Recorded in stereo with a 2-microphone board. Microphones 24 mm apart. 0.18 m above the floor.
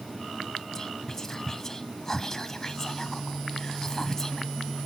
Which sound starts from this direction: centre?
Whispering, at 0.8 s.